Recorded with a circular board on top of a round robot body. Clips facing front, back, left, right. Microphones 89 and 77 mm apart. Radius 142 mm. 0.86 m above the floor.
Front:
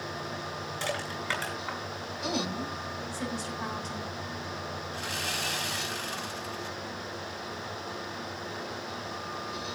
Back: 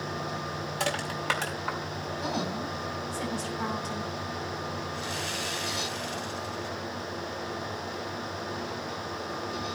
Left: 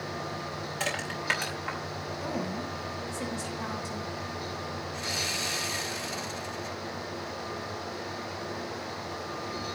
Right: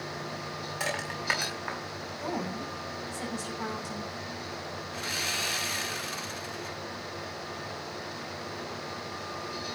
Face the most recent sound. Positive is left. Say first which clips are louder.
# back 1 dB, even
turn(degrees=-45)